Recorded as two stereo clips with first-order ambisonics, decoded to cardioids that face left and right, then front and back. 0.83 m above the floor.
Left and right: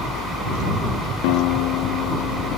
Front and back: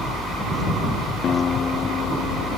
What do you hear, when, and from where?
1.2 s a guitar: 65° left